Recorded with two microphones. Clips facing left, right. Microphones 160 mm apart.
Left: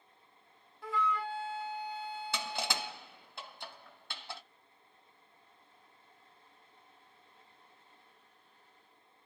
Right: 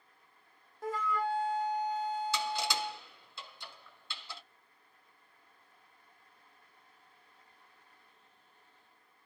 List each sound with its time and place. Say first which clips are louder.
0.8 s a flute: right 1 dB; 45° right (ahead or behind), 0.5 m
2.3 s crushing: right 3 dB; 60° left (ahead or behind), 1.9 m